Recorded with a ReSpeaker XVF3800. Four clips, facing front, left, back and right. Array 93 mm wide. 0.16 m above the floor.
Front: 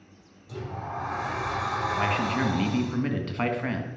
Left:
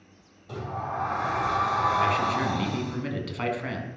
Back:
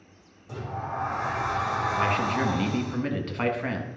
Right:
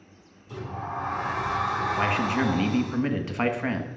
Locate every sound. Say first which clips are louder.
0.5 s a sliding door: left 1 dB, back 2 dB; 110° left, 3.5 m
2.0 s a man speaking: left 1 dB, back 1 dB; 90° right, 1.3 m